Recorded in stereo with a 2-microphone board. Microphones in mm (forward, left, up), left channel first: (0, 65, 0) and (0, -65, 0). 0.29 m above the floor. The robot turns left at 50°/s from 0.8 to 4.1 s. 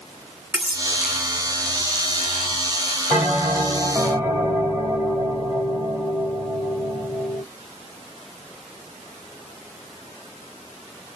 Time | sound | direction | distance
0.5 | cutlery clinking | 15° right (ahead or behind) | 1.4 m
3.1 | a bell | 15° right (ahead or behind) | 1.6 m